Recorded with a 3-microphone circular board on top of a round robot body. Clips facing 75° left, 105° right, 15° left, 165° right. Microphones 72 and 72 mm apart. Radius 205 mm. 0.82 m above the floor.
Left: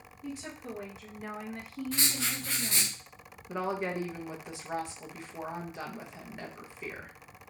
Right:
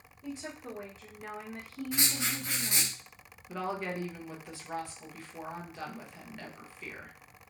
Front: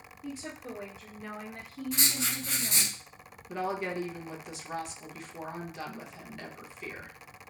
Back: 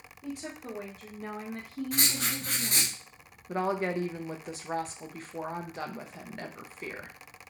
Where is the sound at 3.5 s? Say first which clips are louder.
Left 3 dB, back 3 dB; 145° left, 0.7 m.